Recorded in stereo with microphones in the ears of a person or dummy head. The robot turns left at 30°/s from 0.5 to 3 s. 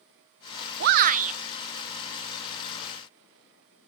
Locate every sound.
0.8 s a shout: 55° right (ahead or behind), 0.6 m; by 1.4 s 40° right (ahead or behind), 0.6 m